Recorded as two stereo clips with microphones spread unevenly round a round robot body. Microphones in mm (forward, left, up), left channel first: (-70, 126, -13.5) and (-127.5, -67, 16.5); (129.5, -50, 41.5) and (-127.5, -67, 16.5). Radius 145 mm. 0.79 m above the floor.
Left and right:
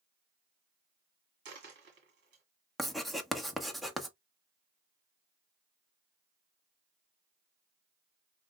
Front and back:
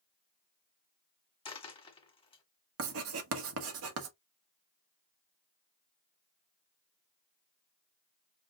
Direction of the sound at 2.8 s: 160° left.